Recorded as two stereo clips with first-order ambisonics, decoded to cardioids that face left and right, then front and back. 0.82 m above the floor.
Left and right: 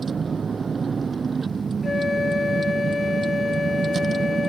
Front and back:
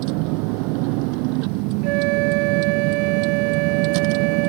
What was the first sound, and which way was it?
A vehicle, 165° right.